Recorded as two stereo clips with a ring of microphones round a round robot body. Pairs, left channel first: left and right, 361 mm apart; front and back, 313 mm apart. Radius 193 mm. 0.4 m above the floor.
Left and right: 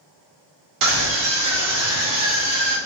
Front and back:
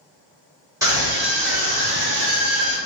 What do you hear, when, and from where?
0.8 s a scream: 100° right, 1.4 m; by 2.8 s 145° right, 1.6 m